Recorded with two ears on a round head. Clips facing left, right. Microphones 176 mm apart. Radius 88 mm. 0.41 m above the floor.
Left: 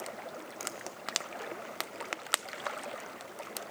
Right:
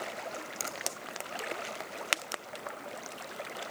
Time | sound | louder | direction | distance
0.6 | a finger snap | right 1 dB | 45° right (ahead or behind) | 2.5 m